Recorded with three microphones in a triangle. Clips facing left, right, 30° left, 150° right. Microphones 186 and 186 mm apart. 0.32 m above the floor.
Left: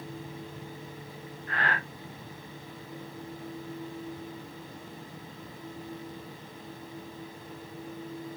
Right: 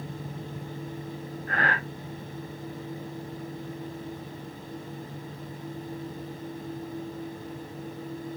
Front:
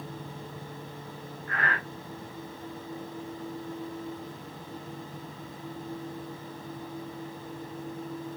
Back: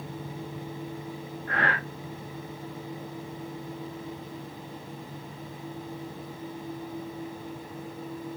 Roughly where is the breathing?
Behind right.